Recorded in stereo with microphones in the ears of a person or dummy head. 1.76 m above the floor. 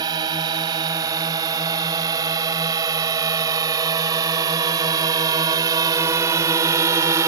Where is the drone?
25° right (ahead or behind); by 7.3 s 20° right (ahead or behind).